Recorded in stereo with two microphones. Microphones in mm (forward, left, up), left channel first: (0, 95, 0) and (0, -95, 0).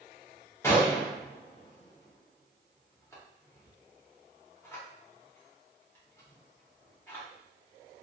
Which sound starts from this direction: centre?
A gunshot, at 0.6 s.